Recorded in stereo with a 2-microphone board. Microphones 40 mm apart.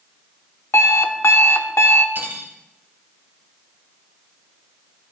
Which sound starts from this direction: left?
An alarm clock, at 0.7 s.